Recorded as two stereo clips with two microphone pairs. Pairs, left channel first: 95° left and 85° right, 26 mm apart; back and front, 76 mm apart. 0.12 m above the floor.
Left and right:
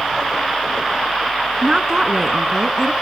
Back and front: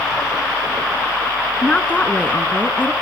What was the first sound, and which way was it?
A woman speaking, 125° right.